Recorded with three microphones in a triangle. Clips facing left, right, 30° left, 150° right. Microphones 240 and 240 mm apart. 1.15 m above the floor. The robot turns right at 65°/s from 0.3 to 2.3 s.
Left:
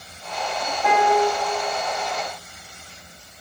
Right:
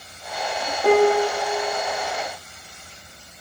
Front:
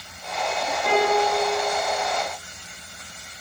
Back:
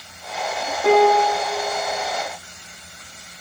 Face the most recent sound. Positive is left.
turn(degrees=-45)